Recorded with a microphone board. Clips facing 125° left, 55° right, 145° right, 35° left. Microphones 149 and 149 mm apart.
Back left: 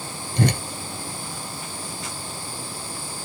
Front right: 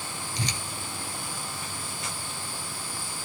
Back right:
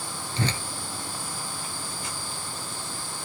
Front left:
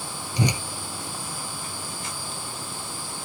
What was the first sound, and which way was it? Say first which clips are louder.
A whoosh: back left 14 dB, front left 4 dB; 110° left.